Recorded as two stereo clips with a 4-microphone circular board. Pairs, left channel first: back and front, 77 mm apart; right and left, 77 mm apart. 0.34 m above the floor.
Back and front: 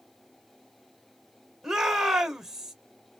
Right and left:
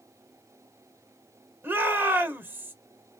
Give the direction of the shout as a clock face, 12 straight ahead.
9 o'clock.